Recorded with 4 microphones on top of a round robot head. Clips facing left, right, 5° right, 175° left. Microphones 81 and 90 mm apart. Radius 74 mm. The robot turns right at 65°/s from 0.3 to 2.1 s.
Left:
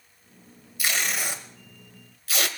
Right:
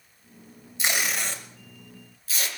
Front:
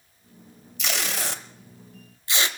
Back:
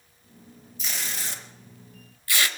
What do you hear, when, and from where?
0.8 s tape being pulled: 25° right, 1.2 m; by 2.5 s 60° left, 1.2 m